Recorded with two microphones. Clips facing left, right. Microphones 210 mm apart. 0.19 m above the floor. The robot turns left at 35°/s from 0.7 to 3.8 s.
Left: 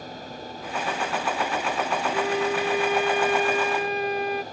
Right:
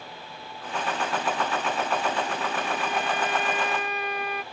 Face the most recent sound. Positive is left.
turn(degrees=30)